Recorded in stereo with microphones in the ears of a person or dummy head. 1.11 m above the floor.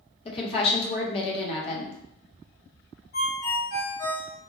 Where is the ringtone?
55° left (ahead or behind), 0.9 m.